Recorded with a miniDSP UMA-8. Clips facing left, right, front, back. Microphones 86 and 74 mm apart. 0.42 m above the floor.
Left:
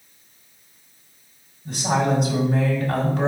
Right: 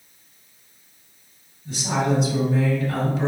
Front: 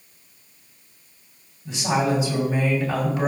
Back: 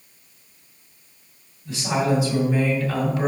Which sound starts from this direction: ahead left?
A woman speaking, at 1.6 s.